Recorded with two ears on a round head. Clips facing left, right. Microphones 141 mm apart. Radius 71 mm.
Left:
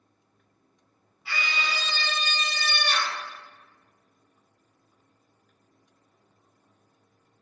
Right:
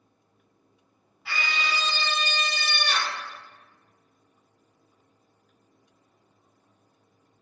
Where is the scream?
50° right (ahead or behind), 1.9 m; by 3.2 s 65° right (ahead or behind), 1.6 m.